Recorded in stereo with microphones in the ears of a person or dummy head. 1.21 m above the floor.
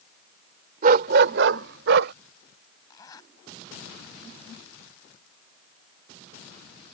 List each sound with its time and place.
0.8 s a dog barking: 55° right (ahead or behind); by 2.1 s 65° right (ahead or behind)
2.9 s a zipper: 20° left (ahead or behind)